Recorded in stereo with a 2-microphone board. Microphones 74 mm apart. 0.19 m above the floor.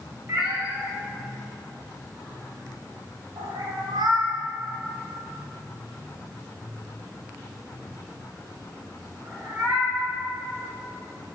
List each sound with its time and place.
0.3 s a cat meowing: 25° right (ahead or behind), 1.6 m; by 10.1 s 40° right (ahead or behind), 4.5 m